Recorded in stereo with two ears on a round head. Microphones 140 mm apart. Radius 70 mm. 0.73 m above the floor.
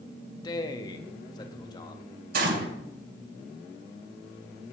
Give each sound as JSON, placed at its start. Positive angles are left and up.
{"t": 0.4, "sound": "a man speaking", "side_deg": 25, "distance_m": 1.0}
{"t": 2.3, "sound": "a gunshot", "side_deg": -60, "distance_m": 2.5}